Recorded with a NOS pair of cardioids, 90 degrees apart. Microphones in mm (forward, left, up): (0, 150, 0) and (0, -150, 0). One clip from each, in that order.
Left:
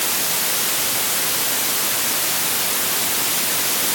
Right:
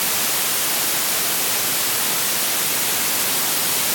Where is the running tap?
I don't hear a running tap.